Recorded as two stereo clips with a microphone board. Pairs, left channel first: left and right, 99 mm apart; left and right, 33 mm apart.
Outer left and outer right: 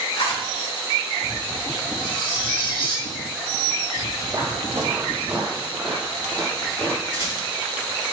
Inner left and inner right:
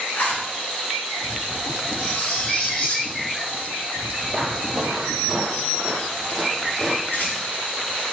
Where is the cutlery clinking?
55° left (ahead or behind), 1.9 m.